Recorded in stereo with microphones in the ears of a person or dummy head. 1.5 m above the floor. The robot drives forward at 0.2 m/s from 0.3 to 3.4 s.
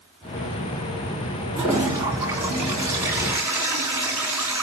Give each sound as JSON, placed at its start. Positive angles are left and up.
{"t": 1.6, "sound": "a toilet flushing", "side_deg": -15, "distance_m": 4.5}